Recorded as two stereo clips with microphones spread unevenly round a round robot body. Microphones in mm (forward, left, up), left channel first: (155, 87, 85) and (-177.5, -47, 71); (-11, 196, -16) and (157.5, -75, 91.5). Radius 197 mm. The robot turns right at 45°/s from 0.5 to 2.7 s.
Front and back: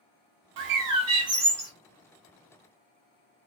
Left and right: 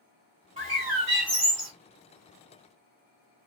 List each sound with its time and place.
0.6 s a bird: 130° right, 0.8 m; by 1.7 s 75° right, 0.8 m